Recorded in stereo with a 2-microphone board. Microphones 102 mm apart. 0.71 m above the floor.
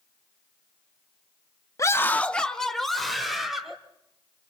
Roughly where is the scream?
Left.